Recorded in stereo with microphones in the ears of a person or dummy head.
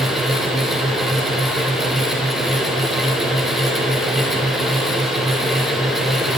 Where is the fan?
Centre (ahead or behind), 0.9 m.